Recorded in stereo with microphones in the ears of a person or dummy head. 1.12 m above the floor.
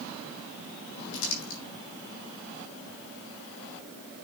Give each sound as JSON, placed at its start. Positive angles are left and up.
{"t": 1.1, "sound": "crumpling", "side_deg": 65, "distance_m": 4.0}